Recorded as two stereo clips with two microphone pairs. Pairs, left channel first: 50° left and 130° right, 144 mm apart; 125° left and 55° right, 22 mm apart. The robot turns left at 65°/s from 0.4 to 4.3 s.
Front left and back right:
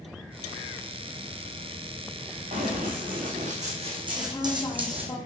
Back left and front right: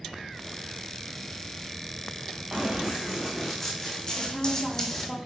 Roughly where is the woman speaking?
Left.